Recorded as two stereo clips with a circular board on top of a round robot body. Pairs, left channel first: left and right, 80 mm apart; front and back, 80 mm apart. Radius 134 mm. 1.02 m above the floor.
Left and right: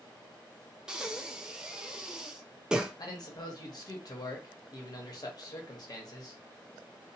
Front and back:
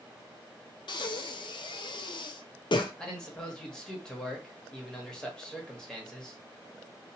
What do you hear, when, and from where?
0.9 s breathing: 10° right, 0.5 m
3.0 s a man speaking: 80° left, 1.1 m